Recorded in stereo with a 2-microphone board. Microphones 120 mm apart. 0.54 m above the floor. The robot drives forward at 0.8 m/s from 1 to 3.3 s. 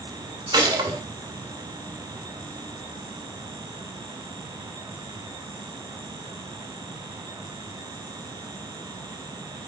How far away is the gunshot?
About 2 m.